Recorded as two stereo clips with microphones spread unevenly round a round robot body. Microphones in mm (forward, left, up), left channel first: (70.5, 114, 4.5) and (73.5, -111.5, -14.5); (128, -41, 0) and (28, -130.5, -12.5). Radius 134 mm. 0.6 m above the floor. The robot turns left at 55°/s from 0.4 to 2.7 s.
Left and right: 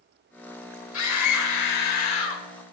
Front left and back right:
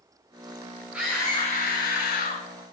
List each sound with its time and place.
0.9 s a scream: 140° left, 1.9 m; by 2.4 s 55° left, 1.9 m